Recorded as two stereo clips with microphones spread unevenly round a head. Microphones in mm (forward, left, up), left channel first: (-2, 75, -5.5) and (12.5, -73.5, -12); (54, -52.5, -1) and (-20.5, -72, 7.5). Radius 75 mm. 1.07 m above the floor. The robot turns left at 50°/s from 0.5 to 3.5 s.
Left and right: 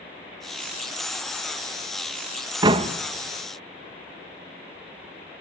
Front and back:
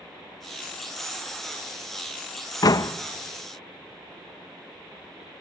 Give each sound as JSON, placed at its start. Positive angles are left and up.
{"t": 2.6, "sound": "a door slam", "azimuth_deg": -20, "distance_m": 0.8}